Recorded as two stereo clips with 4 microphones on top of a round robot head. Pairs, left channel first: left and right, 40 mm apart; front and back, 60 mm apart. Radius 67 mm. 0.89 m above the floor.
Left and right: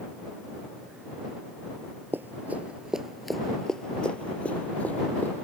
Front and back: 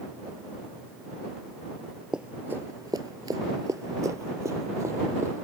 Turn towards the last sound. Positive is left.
turn(degrees=135)